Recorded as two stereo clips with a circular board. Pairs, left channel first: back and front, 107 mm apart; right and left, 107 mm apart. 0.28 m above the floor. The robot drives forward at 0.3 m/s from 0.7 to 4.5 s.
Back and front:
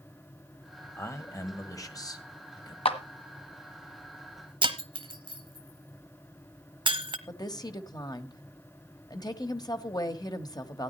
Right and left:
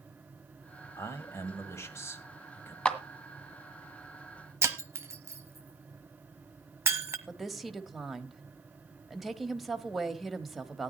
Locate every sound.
1.0 s a man speaking: 135° right, 1.8 m; by 2.8 s 150° right, 2 m
2.9 s a clap: 170° right, 1.6 m
4.6 s breaking glass: 30° left, 1.1 m
7.3 s a woman speaking: straight behind, 1.2 m